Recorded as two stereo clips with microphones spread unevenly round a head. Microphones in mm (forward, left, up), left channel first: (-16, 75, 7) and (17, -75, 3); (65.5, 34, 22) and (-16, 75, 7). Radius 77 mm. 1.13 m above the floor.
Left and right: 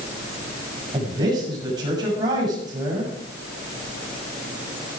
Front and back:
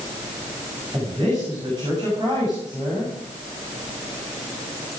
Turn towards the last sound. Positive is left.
turn(degrees=-145)